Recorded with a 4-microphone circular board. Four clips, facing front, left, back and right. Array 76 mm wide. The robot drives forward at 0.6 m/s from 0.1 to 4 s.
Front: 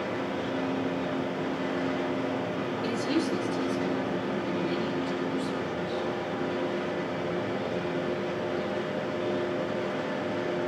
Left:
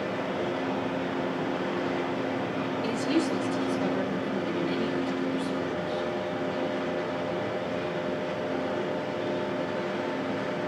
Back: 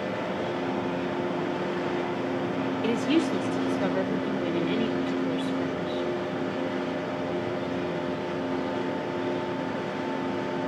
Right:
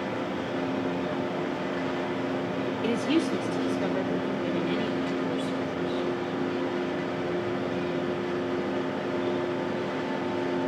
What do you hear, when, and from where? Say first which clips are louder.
2.8 s a woman speaking: right 2 dB, back 4 dB; 150° right, 0.8 m; by 6.1 s 165° right, 1.3 m